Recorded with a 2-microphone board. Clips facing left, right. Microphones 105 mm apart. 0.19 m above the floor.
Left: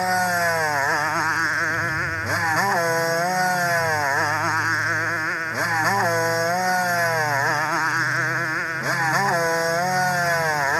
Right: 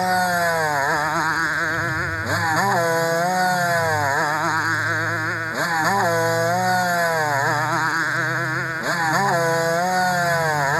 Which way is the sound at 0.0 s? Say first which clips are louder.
Right 2 dB; 10° right (ahead or behind).